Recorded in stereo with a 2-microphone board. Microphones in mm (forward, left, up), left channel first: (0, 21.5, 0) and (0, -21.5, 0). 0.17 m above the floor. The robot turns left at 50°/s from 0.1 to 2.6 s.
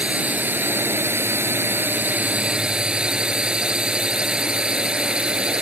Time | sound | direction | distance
0.0 | a drone | 30° right | ?